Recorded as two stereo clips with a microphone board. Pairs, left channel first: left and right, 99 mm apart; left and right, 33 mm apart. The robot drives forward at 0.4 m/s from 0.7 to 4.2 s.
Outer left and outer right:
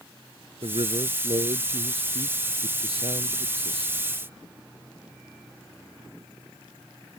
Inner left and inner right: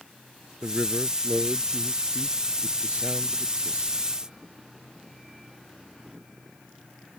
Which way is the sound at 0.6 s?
70° right (ahead or behind).